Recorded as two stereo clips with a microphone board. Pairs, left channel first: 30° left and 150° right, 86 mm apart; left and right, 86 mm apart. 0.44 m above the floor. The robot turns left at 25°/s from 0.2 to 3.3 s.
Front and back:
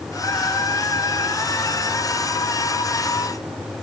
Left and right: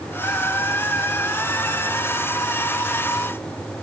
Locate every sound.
Only background noise.